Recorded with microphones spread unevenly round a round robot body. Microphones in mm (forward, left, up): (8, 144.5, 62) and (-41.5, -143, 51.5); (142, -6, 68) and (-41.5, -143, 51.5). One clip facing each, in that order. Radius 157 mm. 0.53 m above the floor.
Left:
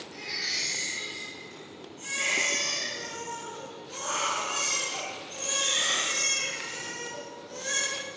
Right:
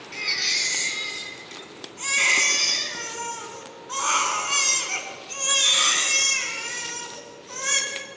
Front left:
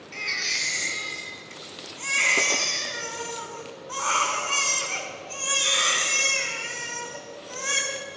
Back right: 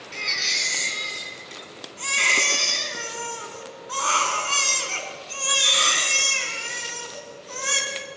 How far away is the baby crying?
About 5 m.